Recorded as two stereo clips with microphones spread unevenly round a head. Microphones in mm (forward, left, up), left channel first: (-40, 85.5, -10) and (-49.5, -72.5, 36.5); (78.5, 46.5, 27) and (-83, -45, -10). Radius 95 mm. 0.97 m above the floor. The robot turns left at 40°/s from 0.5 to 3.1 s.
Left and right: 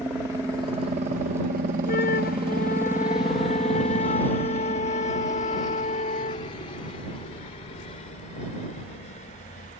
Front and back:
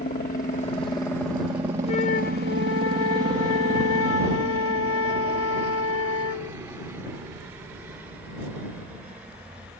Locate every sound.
0.0 s a helicopter: 5° right; by 9.8 s 125° left
1.9 s a flute: 95° left; by 6.6 s 45° left